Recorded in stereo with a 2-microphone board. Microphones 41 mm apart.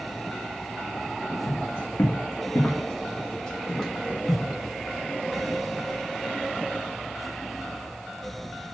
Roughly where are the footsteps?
Left.